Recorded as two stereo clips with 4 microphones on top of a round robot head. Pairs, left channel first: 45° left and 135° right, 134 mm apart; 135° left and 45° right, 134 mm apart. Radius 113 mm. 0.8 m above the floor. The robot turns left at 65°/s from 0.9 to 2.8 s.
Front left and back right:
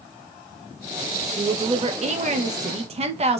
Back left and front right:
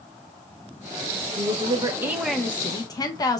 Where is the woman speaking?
70° right, 0.7 m; by 3.4 s 165° right, 0.7 m.